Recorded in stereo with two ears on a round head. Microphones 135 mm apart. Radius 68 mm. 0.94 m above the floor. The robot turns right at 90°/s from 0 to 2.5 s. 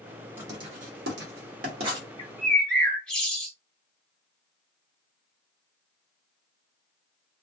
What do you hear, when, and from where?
0.4 s writing: 15° right (ahead or behind), 1.4 m
2.2 s a bird: 30° left (ahead or behind), 1.0 m; by 3.5 s 5° left (ahead or behind), 1.0 m